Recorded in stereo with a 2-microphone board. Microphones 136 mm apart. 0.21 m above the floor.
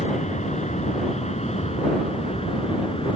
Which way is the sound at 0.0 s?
60° left (ahead or behind).